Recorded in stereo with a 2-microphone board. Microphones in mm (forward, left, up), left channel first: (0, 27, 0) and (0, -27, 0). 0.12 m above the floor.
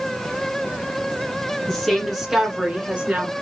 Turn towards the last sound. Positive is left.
turn(degrees=-30)  # may be behind; listen again after turning